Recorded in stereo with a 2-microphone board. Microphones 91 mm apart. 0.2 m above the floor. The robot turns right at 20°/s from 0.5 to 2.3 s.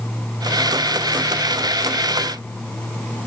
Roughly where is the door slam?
I don't hear a door slam.